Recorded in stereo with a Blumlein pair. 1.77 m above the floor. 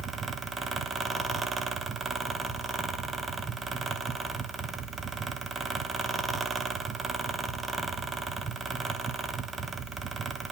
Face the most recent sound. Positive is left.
turn(degrees=-10)